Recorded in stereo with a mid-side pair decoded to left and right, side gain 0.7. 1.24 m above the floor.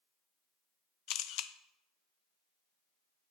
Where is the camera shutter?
60° left, 1.1 m.